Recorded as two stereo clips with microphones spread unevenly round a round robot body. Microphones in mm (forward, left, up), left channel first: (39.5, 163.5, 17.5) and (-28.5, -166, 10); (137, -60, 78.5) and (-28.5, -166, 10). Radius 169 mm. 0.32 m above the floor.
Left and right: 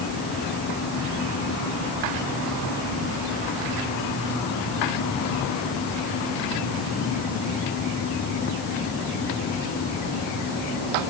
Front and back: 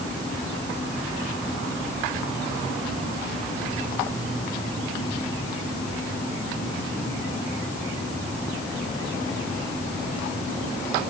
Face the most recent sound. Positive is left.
No sound to turn to.